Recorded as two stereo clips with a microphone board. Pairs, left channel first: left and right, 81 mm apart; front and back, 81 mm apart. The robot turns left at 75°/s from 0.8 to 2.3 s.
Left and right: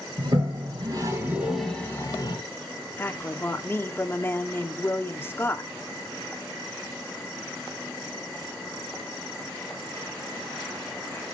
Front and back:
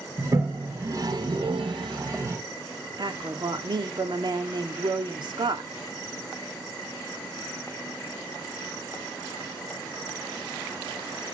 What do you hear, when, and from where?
0.2 s a toilet flushing: 120° right, 2.5 m; by 2.4 s 125° left, 2.5 m
3.0 s a woman speaking: 155° left, 1.8 m